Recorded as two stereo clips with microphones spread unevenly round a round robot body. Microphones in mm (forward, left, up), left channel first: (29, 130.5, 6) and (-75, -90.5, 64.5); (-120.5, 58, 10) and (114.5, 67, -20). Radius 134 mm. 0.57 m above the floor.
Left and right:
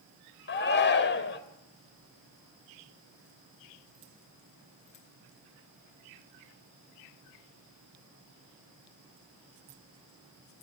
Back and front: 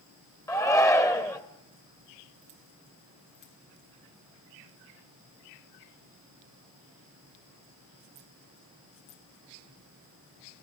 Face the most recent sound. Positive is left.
turn(degrees=100)